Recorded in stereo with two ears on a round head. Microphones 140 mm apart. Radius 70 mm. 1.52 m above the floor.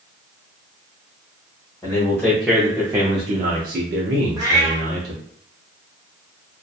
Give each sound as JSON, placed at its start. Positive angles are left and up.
{"t": 1.8, "sound": "a man speaking", "side_deg": 15, "distance_m": 0.9}
{"t": 4.4, "sound": "a cat meowing", "side_deg": -20, "distance_m": 0.8}